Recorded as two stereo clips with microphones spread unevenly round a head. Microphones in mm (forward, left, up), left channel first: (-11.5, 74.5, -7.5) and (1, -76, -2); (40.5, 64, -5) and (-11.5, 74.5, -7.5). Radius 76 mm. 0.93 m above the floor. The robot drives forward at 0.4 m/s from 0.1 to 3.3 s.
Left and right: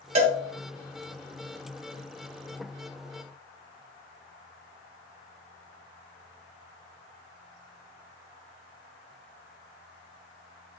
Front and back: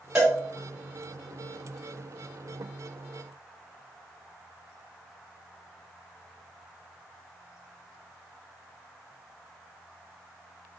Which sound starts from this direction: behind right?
A cowbell, at 0.1 s.